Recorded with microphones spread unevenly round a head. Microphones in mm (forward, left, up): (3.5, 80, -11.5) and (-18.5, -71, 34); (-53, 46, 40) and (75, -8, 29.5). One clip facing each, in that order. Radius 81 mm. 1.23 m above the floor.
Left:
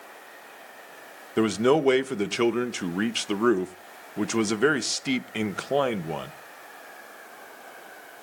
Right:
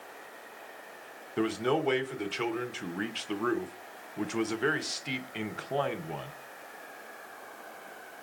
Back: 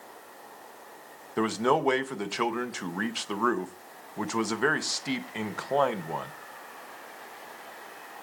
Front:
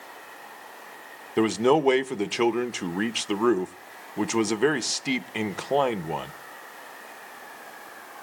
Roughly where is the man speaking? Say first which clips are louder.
Left 8 dB, front 5 dB; ahead left.